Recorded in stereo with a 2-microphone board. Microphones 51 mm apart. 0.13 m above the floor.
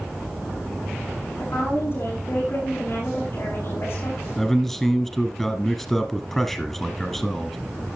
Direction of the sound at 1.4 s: 50° left (ahead or behind).